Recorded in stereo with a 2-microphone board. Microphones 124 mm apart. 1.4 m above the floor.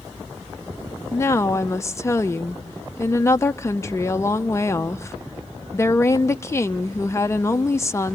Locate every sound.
1.1 s a woman speaking: 25° left (ahead or behind), 0.6 m